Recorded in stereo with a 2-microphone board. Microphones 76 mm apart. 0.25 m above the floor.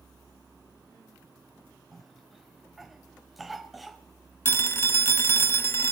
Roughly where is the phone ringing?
Left.